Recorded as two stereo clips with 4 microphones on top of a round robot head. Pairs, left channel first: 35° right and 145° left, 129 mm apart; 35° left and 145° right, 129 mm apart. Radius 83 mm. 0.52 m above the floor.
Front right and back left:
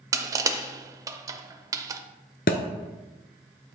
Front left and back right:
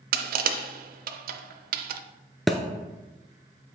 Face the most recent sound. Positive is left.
turn(degrees=-55)